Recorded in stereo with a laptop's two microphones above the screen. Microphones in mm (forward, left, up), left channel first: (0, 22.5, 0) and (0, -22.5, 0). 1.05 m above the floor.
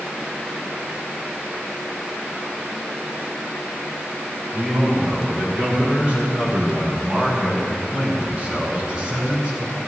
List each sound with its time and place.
4.5 s a man speaking: 35° right (ahead or behind), 4 m; by 9.7 s 20° right (ahead or behind), 6.5 m